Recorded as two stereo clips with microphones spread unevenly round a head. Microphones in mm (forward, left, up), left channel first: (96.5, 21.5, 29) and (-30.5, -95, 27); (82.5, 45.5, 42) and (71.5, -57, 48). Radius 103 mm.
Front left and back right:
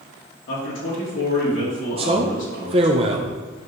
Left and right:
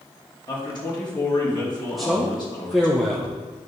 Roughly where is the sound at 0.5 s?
Ahead left.